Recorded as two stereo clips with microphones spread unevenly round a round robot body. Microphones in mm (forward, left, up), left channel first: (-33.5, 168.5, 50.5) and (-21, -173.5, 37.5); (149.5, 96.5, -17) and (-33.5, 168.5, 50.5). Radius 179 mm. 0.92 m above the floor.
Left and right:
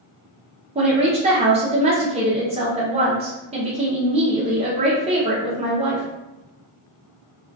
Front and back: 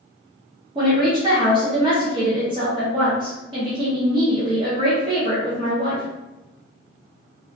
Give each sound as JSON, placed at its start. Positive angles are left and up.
{"t": 0.8, "sound": "a woman speaking", "azimuth_deg": -120, "distance_m": 0.5}